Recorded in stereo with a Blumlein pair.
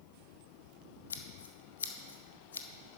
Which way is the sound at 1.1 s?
65° left.